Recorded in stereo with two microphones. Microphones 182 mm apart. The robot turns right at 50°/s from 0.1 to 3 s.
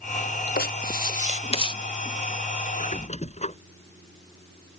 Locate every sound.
0.6 s writing: 95° left; by 1.7 s 150° left
2.7 s a squeak: 50° left (ahead or behind); by 3.6 s 40° left (ahead or behind)